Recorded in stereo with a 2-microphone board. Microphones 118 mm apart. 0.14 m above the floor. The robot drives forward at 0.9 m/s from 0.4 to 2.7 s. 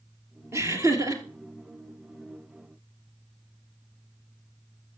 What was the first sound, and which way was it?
Laughter, 25° right (ahead or behind).